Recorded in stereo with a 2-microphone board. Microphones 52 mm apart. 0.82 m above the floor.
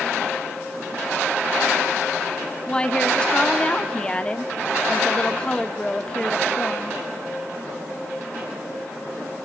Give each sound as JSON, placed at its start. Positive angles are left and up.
{"t": 2.7, "sound": "a woman speaking", "side_deg": 15, "distance_m": 1.6}